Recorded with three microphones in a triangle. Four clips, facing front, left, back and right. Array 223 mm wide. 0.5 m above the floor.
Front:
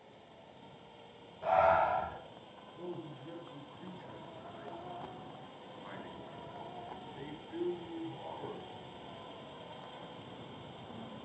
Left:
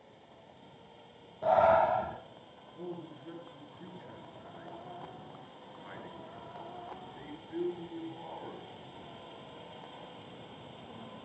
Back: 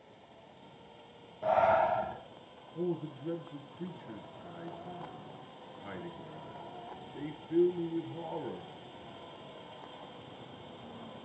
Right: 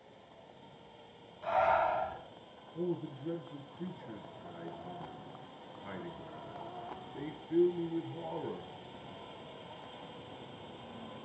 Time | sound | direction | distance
1.4 | breathing | 115° left | 6.5 m
2.8 | a man speaking | 145° right | 5.5 m